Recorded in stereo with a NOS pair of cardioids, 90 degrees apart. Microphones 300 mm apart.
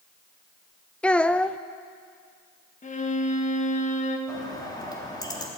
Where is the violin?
25° left, 1.7 m.